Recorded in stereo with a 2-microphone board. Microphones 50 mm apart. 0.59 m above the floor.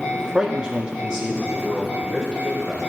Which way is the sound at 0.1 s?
10° right (ahead or behind).